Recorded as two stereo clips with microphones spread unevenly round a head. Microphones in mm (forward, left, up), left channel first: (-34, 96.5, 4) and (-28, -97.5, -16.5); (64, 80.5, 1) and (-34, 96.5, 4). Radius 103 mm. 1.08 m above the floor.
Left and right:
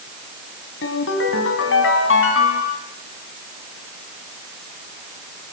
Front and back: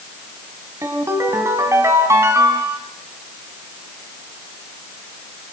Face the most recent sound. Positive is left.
turn(degrees=110)